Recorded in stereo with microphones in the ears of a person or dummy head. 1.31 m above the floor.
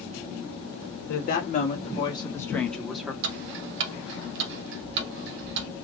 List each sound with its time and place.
1.1 s a woman speaking: 55° left (ahead or behind), 1.4 m; by 3.1 s centre (ahead or behind), 1.6 m
3.2 s ticking: 60° right (ahead or behind), 0.9 m